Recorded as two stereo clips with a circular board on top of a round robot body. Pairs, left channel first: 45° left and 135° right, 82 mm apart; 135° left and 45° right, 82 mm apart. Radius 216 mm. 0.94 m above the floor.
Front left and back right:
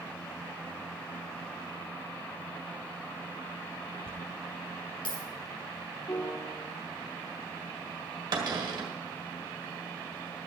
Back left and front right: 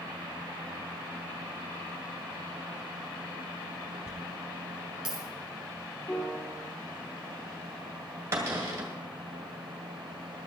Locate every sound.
4.1 s a dropped coin: 40° left, 4 m
6.1 s a piano: 85° left, 3 m
8.3 s a cupboard door: 105° right, 1.8 m